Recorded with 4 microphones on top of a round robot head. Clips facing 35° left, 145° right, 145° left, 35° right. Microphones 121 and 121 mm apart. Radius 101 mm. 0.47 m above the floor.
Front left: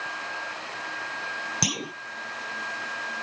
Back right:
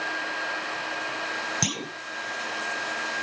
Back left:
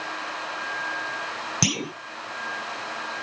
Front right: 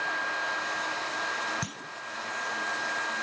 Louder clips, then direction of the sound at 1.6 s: Even, back left 12 dB; 120° left.